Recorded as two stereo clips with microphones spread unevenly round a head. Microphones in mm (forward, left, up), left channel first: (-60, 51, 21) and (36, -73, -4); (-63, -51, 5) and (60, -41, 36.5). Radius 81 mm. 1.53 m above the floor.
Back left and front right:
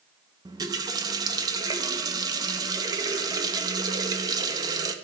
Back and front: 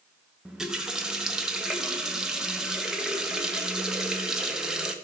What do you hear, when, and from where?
0.5 s a running tap: 5° right, 0.6 m